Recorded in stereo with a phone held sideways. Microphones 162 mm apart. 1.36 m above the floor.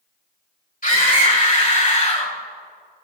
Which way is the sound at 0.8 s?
60° left (ahead or behind).